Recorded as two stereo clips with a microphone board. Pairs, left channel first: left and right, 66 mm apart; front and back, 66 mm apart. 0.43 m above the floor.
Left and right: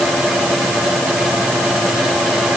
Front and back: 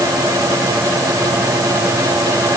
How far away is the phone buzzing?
No phone buzzing in this recording.